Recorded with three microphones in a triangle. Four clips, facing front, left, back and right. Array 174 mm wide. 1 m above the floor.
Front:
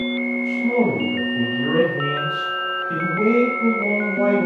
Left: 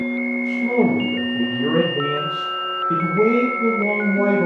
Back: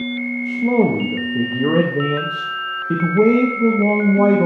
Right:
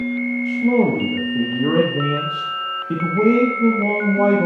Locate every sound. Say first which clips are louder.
0.5 s a man speaking: right 2 dB, back 4 dB; 165° right, 1.1 m